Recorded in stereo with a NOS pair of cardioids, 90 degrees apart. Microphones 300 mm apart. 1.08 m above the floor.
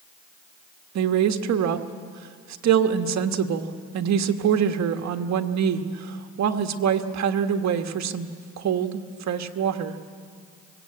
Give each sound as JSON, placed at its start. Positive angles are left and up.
{"t": 0.9, "sound": "a woman speaking", "azimuth_deg": -65, "distance_m": 1.6}